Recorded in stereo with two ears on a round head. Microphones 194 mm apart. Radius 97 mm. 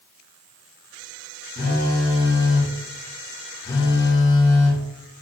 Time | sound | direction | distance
1.6 | a phone buzzing | 15° left (ahead or behind) | 5 m